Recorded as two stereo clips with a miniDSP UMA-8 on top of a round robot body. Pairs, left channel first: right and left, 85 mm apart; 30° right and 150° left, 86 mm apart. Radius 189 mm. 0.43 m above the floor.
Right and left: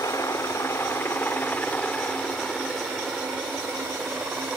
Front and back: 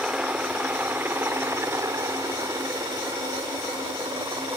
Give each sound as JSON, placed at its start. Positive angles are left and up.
{"t": 0.0, "sound": "a helicopter", "azimuth_deg": -130}